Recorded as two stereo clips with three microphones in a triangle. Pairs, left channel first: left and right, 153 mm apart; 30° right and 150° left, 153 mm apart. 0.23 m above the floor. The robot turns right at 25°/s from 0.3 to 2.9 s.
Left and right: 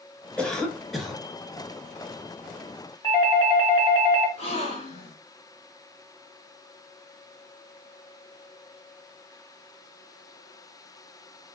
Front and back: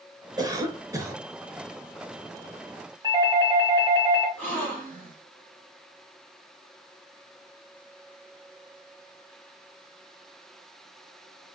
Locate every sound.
0.4 s a cough: 165° left, 1.1 m; by 1.2 s 175° right, 1.1 m
3.0 s a doorbell: 115° left, 1.9 m
4.4 s a gasp: 45° left, 2.5 m